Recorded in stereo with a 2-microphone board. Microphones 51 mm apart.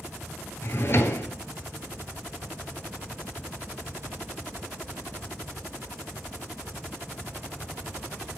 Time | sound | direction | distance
0.6 | a drawer | 50° left (ahead or behind) | 0.5 m